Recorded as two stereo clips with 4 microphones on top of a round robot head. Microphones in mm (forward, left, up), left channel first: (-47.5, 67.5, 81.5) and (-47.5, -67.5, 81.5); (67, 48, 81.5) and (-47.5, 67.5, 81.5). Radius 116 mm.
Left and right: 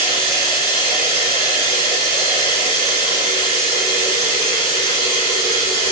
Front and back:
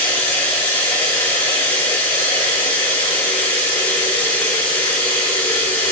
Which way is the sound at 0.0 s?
60° right.